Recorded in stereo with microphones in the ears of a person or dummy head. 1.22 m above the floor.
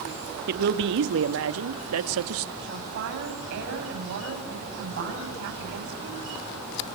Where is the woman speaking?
65° right (ahead or behind), 8 m.